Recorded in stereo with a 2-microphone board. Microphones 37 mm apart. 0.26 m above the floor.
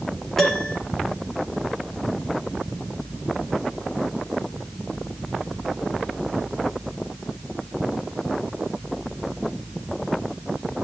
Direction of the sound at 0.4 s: 5° left (ahead or behind).